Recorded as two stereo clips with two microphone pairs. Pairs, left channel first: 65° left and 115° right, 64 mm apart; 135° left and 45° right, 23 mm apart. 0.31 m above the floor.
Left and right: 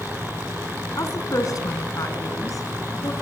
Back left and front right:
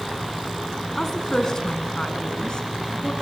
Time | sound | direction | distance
0.9 | a woman speaking | 70° left | 3 m